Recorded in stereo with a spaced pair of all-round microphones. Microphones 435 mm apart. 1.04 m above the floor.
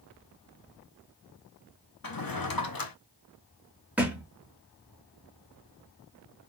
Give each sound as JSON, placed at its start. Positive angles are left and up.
{"t": 2.0, "sound": "a drawer", "side_deg": 50, "distance_m": 0.6}
{"t": 4.0, "sound": "a thud", "side_deg": -5, "distance_m": 1.0}